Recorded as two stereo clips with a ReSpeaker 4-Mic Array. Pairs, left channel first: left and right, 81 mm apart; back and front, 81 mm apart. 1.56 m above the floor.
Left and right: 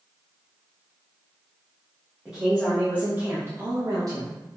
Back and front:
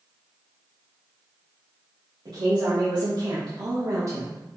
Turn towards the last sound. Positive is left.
turn(degrees=-55)